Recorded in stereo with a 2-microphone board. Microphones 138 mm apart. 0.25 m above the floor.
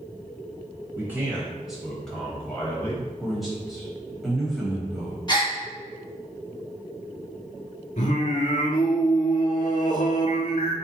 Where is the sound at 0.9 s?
15° right (ahead or behind), 1.0 m; by 3.0 s 20° left (ahead or behind), 1.2 m.